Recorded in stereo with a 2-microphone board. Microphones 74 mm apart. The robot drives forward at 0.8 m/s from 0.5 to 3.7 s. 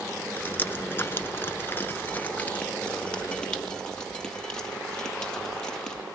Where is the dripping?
25° left (ahead or behind), 1.1 m; by 6.0 s 15° left (ahead or behind), 2 m.